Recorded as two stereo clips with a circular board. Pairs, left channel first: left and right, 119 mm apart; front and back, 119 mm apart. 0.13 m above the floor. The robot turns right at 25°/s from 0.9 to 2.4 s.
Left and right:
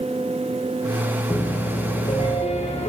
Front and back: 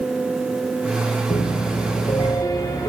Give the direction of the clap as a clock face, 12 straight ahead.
I don't hear a clap.